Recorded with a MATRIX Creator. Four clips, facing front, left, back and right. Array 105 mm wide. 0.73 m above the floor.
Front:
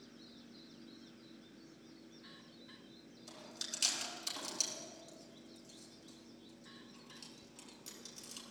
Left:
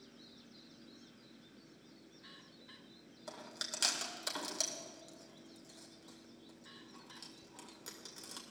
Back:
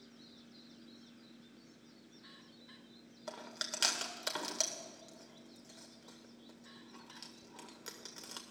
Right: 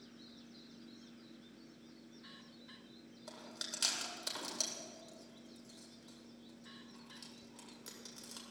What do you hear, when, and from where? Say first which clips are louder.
3.3 s chewing: left 3 dB, back 8 dB; 170° left, 1.8 m